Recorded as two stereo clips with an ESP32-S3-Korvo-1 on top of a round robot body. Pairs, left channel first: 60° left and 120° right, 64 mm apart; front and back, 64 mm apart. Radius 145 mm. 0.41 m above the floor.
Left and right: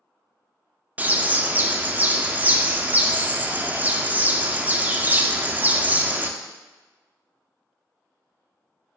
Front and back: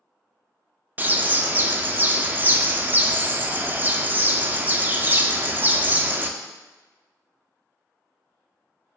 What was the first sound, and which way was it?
A bird, 155° right.